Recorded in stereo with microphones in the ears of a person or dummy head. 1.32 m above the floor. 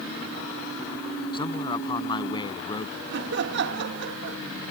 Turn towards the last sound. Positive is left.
turn(degrees=-55)  # may be behind; listen again after turning